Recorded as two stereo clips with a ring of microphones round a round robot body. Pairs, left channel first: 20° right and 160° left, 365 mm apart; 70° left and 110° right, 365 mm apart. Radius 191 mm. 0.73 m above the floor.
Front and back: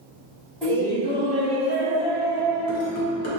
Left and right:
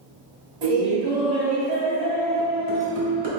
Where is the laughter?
110° right, 1.6 m; by 3.3 s 60° right, 2.5 m.